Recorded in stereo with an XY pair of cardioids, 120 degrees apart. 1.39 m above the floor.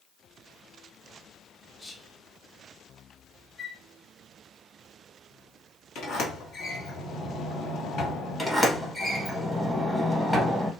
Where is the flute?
40° left, 0.6 m.